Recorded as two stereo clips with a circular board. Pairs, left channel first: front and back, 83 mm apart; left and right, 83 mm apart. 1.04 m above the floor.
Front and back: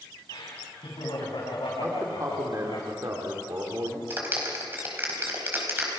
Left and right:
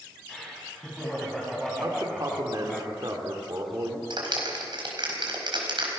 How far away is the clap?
About 4.5 m.